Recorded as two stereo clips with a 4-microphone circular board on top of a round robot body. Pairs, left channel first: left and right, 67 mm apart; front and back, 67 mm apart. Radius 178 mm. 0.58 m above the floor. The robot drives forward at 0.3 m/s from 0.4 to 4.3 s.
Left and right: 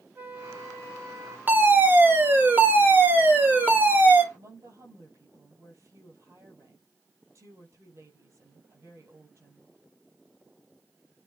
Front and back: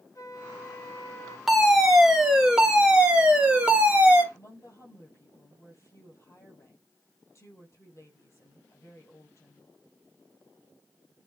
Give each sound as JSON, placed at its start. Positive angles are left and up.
{"t": 0.1, "sound": "a flute", "azimuth_deg": -35, "distance_m": 2.0}
{"t": 1.5, "sound": "a fire alarm", "azimuth_deg": -95, "distance_m": 2.0}
{"t": 4.3, "sound": "a woman speaking", "azimuth_deg": -50, "distance_m": 4.5}